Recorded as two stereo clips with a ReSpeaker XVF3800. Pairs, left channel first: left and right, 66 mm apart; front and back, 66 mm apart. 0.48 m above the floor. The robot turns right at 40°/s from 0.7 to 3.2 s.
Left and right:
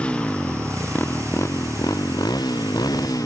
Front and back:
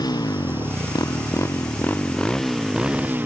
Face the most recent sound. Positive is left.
turn(degrees=120)